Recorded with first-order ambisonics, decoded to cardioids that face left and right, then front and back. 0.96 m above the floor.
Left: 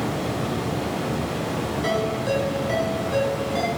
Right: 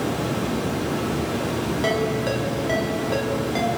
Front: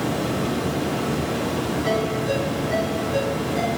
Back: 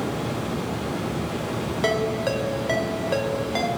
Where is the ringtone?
160° right, 1.6 m.